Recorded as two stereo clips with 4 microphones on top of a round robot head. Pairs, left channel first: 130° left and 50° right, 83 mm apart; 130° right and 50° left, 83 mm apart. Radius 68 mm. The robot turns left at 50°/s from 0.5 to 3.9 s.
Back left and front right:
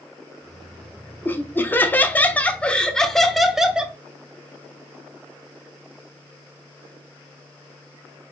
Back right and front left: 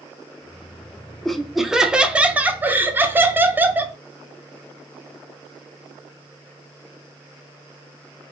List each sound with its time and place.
1.2 s laughter: 150° left, 0.8 m; by 4.0 s 15° left, 0.8 m